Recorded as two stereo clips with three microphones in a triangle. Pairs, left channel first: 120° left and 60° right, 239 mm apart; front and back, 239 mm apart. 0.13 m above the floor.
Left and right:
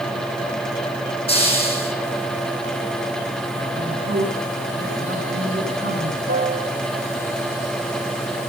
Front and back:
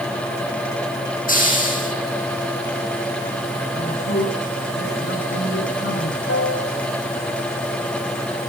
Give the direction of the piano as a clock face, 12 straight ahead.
12 o'clock.